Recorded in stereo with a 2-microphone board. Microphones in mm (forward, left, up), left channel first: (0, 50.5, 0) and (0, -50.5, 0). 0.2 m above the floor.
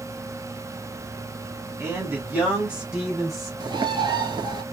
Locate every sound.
1.8 s a man speaking: 25° right (ahead or behind), 1.4 m; by 3.5 s 5° left (ahead or behind), 1.5 m
3.6 s a bird: 45° right (ahead or behind), 0.9 m